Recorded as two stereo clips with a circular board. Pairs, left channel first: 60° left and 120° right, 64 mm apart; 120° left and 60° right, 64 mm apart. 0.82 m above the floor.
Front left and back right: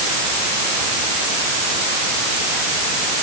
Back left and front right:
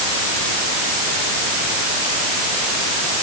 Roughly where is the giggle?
I don't hear a giggle.